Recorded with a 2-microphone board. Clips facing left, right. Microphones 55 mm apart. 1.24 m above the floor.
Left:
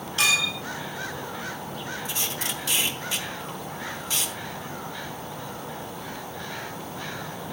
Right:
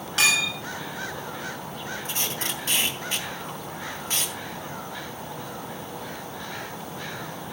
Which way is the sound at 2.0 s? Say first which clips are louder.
Even; 40° right (ahead or behind).